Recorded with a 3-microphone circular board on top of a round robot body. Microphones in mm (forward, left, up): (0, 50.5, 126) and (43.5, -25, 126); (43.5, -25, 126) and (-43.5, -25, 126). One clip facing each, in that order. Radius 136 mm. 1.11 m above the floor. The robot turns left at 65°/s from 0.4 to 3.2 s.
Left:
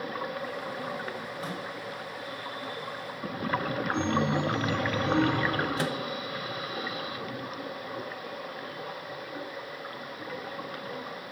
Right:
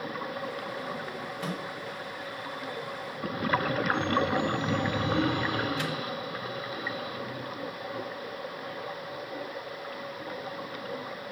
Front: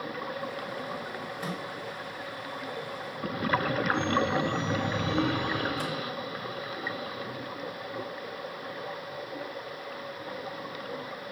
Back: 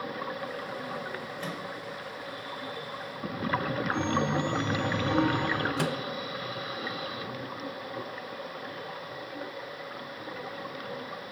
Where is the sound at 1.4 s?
75° right, 5 m; by 1.6 s 90° right, 5 m.